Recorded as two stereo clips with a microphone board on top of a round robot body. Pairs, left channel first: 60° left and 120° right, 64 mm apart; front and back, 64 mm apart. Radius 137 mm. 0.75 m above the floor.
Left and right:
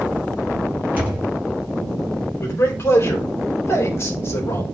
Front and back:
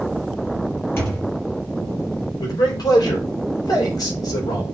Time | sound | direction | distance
1.0 | a thud | 55° right | 3.5 m
2.4 | a man speaking | 10° left | 4 m